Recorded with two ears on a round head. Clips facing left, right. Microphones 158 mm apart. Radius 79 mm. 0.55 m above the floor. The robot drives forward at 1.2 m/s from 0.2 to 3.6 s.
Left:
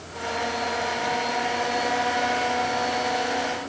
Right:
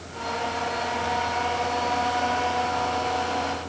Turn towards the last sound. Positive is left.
No sound to turn to.